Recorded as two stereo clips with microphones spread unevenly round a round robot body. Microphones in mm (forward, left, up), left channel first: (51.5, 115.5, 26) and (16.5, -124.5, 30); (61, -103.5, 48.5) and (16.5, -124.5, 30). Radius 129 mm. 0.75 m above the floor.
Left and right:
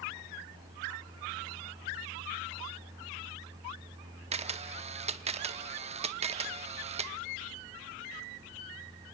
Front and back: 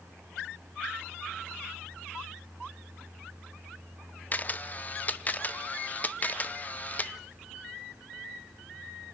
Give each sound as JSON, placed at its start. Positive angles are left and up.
{"t": 4.3, "sound": "a camera shutter", "azimuth_deg": -35, "distance_m": 0.9}